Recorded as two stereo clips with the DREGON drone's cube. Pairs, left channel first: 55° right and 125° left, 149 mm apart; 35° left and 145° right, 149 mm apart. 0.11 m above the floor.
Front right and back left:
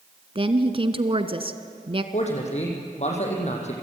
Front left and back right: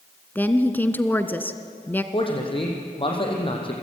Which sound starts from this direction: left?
A woman speaking, at 0.3 s.